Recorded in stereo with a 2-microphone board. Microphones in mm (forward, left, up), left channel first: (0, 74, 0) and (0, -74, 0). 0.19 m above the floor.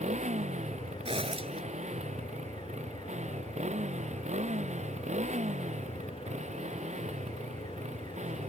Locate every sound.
0.0 s a motorcycle: 50° right (ahead or behind)
1.1 s a zipper: 40° right (ahead or behind)